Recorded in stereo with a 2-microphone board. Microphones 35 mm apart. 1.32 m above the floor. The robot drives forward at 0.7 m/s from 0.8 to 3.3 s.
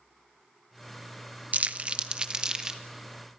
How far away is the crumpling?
About 0.7 m.